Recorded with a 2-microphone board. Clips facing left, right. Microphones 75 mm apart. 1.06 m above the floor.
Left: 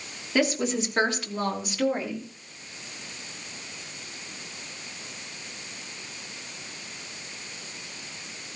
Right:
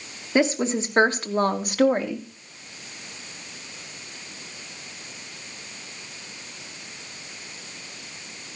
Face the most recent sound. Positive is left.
turn(degrees=-60)  # may be behind; listen again after turning